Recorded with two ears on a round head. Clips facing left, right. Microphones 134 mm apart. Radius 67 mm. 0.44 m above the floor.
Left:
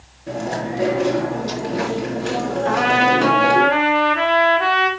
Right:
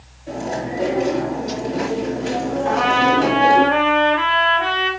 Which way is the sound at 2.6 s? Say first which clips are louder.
Even; 60° left (ahead or behind).